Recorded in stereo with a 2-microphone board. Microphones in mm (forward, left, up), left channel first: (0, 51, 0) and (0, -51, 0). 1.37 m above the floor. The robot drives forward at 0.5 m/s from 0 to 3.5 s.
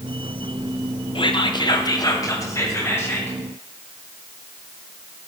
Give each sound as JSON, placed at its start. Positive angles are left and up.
{"t": 1.1, "sound": "whispering", "side_deg": 55, "distance_m": 0.7}